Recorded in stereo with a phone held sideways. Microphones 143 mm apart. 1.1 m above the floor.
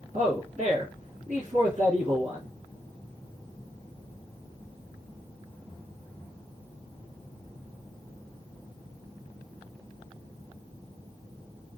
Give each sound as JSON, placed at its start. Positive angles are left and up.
{"t": 0.1, "sound": "a man speaking", "side_deg": -60, "distance_m": 1.1}